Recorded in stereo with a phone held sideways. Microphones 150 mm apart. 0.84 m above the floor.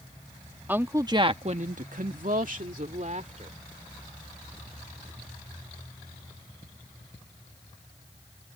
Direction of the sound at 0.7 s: 10° right (ahead or behind).